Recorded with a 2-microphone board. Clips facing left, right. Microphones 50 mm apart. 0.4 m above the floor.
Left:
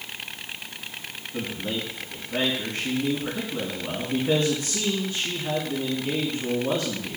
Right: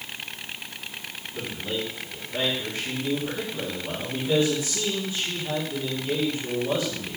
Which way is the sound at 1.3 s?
60° left (ahead or behind).